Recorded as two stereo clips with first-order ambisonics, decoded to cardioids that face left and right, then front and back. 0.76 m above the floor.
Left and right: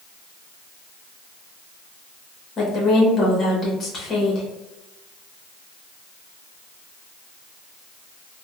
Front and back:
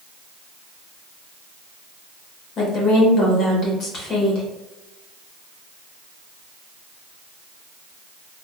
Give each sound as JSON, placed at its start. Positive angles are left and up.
{"t": 2.6, "sound": "a woman speaking", "azimuth_deg": 35, "distance_m": 0.9}